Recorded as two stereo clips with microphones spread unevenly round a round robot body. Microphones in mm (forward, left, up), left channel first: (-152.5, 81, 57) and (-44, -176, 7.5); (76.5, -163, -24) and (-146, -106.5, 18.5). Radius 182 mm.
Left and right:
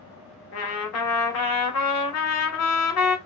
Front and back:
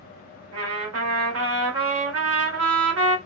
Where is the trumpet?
145° left, 0.7 m.